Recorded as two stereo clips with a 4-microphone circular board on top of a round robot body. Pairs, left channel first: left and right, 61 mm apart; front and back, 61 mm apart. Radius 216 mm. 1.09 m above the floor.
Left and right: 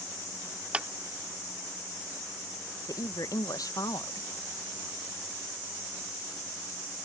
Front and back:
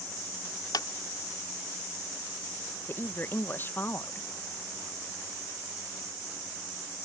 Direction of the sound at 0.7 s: 20° right.